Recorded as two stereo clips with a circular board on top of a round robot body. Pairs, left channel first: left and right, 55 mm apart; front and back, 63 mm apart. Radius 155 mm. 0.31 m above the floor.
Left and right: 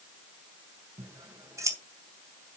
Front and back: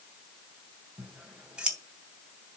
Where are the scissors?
105° right, 3 m.